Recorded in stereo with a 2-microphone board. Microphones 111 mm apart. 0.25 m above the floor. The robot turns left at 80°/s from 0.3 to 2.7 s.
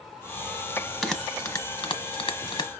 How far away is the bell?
About 1.1 m.